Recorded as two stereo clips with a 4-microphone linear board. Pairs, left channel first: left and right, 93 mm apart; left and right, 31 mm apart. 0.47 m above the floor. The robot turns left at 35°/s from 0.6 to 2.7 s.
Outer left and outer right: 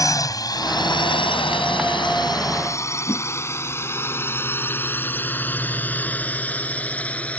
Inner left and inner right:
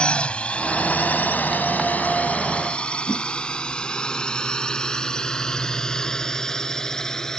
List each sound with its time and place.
0.0 s a drone: 40° left (ahead or behind); by 7.4 s 15° left (ahead or behind)
3.1 s a whoosh: 35° left (ahead or behind)